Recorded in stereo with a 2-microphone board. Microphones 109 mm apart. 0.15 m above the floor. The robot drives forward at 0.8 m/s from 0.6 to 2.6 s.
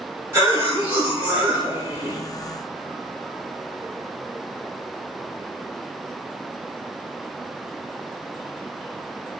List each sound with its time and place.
0.3 s a cough: 25° right (ahead or behind), 1.3 m; by 2.2 s 15° right (ahead or behind), 2 m